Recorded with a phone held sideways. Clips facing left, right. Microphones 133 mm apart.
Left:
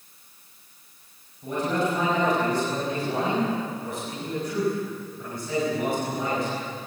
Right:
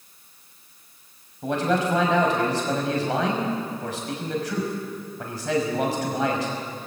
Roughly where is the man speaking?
Right.